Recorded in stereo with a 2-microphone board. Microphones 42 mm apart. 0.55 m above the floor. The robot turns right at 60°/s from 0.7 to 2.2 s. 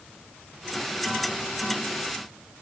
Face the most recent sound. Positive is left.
No sound to turn to.